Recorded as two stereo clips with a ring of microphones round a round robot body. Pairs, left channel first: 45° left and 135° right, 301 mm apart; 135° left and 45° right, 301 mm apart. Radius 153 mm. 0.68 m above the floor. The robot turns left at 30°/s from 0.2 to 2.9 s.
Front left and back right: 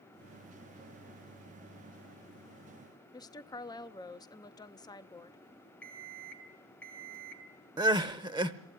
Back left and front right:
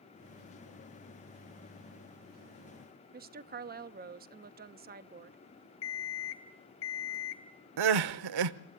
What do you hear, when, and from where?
3.1 s a woman speaking: 20° right, 0.7 m
5.8 s an alarm clock: 130° left, 1.9 m
7.8 s crying: 60° right, 0.8 m